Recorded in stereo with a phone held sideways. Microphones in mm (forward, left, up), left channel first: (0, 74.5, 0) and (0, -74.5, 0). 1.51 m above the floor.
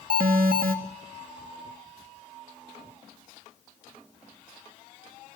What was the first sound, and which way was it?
An alarm, 80° right.